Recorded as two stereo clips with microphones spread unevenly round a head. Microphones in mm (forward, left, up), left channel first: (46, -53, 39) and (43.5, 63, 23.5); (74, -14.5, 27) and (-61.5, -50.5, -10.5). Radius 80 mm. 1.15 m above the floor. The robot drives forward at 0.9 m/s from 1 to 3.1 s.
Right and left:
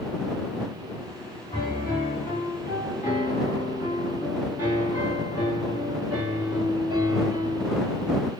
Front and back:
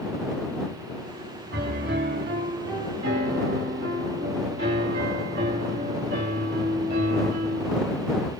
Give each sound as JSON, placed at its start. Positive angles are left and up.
{"t": 1.5, "sound": "a piano", "azimuth_deg": -155, "distance_m": 3.0}